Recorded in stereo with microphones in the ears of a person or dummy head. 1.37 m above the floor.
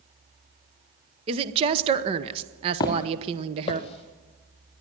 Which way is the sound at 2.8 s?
25° left (ahead or behind).